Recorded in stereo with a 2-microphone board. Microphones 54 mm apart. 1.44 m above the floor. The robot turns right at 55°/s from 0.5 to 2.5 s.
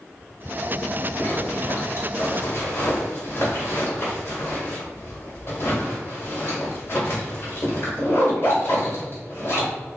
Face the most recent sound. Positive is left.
turn(degrees=45)  # may be behind; listen again after turning